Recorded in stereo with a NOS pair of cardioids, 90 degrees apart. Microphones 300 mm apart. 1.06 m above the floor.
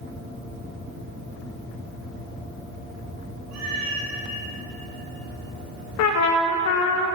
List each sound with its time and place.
3.5 s a cat meowing: 65° right, 1.2 m
6.0 s a trumpet: 70° left, 0.5 m